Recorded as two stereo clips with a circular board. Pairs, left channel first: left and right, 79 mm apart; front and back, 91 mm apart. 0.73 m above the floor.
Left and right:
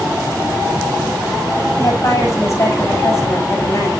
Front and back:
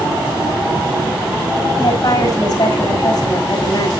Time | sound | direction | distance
1.8 | a woman speaking | 35° left | 5.5 m